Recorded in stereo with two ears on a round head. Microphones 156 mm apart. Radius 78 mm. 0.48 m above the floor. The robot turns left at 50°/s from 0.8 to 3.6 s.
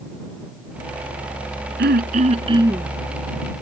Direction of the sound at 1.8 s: 115° right.